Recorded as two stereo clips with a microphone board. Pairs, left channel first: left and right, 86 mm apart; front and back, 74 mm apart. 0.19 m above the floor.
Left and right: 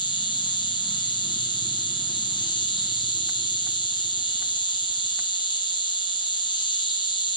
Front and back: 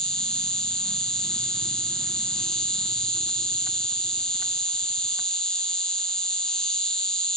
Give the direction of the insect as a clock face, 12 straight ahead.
9 o'clock.